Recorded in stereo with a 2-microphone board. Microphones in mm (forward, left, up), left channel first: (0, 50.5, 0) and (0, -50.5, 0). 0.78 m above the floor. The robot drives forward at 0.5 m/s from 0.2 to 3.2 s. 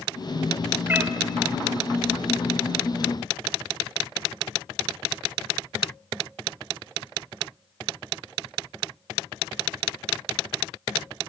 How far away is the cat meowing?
About 1.4 m.